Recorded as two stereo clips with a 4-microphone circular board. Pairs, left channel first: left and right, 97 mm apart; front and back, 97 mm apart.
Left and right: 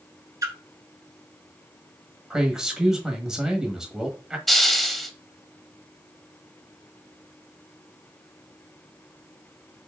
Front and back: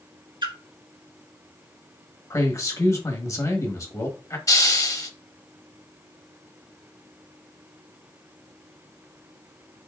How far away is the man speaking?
About 1.0 m.